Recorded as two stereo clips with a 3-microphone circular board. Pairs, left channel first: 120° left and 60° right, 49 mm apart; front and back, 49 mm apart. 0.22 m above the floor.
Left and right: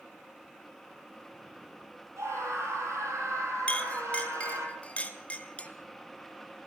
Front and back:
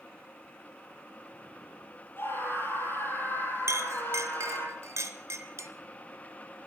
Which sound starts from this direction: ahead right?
A scream, at 2.2 s.